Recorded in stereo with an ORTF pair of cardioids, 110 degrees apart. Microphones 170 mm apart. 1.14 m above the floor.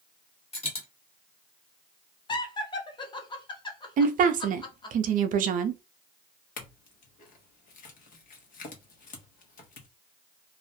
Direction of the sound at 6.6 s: 55° left.